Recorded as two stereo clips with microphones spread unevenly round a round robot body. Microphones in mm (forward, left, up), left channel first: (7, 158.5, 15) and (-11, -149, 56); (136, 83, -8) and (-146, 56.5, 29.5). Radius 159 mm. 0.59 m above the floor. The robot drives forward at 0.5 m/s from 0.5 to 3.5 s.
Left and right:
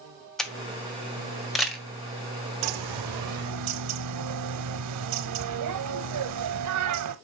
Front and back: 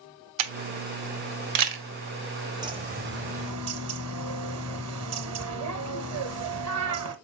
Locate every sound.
0.4 s a camera shutter: 175° left, 1.1 m
2.6 s a bird: 100° right, 0.7 m; by 7.2 s 130° right, 0.8 m